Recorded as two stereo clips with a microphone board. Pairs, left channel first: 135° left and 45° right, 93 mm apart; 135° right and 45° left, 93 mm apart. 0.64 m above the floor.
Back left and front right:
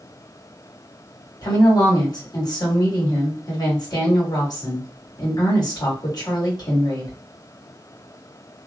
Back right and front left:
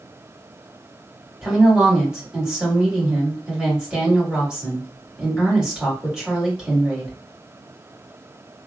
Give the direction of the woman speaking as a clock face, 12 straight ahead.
8 o'clock.